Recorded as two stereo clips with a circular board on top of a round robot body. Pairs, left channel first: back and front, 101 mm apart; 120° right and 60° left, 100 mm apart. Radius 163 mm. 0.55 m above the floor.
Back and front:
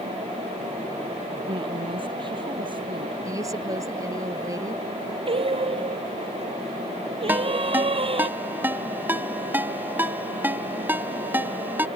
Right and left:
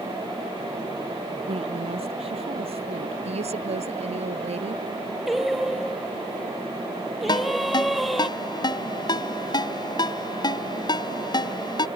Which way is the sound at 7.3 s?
70° right.